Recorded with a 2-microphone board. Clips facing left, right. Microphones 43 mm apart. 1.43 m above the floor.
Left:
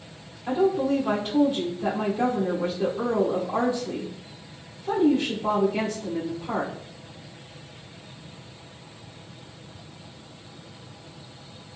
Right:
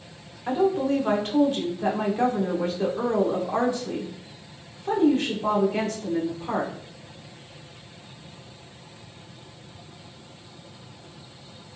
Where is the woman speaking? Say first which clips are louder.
Even; 55° right (ahead or behind), 1.1 m.